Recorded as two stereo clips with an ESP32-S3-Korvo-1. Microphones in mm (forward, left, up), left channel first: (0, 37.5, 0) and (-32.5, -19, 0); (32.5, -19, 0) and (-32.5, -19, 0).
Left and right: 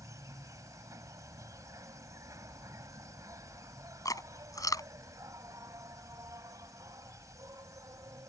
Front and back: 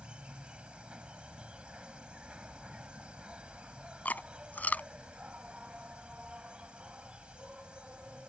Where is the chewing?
65° left.